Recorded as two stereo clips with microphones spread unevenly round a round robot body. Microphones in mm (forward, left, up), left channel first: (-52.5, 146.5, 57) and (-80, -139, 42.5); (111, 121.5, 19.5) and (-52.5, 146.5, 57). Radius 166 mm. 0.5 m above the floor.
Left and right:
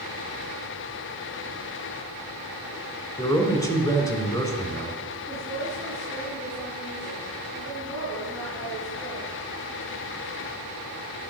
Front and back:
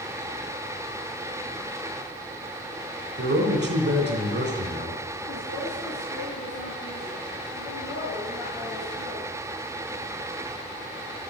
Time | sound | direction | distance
3.2 | a man speaking | 165° left | 3 m
5.3 | a woman speaking | 5° right | 7 m